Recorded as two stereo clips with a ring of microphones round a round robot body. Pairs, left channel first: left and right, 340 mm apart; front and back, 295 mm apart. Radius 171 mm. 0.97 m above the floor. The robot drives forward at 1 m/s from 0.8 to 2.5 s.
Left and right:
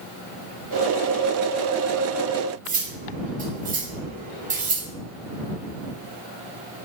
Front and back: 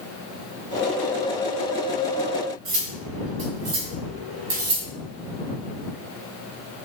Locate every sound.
2.6 s cutlery clinking: 155° right, 1.6 m